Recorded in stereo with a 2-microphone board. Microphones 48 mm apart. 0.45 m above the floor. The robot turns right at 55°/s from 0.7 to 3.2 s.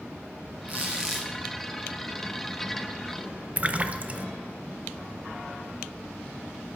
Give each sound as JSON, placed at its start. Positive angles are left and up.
{"t": 0.7, "sound": "a squeak", "azimuth_deg": -30, "distance_m": 2.5}
{"t": 3.6, "sound": "a splash", "side_deg": -30, "distance_m": 0.7}